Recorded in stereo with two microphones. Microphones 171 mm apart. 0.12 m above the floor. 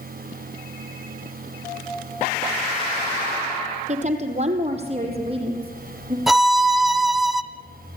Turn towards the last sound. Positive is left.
turn(degrees=0)  # may be behind; listen again after turning